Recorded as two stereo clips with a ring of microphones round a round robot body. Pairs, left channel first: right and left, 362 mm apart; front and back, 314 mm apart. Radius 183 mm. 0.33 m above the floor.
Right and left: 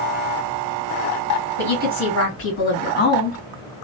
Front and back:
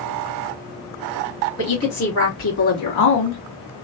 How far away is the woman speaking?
About 2.5 m.